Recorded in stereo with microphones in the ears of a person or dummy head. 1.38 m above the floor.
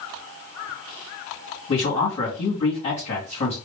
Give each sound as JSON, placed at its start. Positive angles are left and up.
{"t": 1.7, "sound": "a man speaking", "side_deg": 40, "distance_m": 1.8}